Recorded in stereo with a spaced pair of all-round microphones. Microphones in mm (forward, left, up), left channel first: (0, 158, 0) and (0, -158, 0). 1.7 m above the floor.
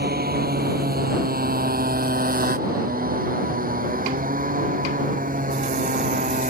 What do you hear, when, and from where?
0.0 s a motorcycle: 30° right (ahead or behind); by 6.5 s 25° right (ahead or behind)